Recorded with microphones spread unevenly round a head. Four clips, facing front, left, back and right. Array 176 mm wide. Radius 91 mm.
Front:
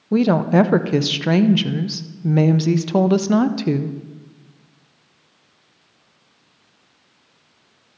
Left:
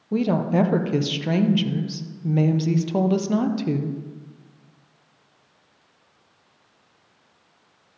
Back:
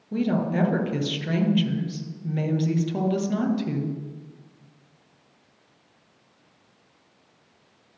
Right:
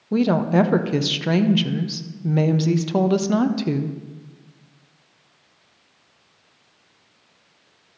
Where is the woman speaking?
20° right, 0.6 m.